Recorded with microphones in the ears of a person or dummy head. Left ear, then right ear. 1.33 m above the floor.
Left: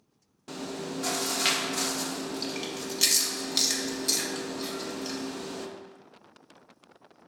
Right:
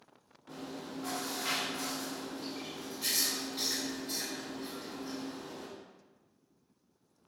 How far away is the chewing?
About 0.6 m.